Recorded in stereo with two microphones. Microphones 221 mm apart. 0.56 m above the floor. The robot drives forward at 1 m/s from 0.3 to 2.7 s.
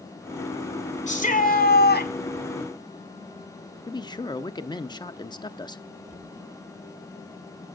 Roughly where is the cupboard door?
Left.